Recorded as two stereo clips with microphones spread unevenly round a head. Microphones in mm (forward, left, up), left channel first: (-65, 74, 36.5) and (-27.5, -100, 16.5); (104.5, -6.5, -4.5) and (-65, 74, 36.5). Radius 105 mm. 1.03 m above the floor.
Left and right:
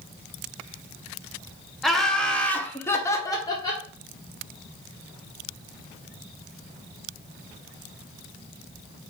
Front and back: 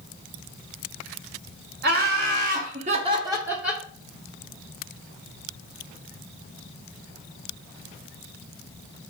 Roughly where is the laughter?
Behind.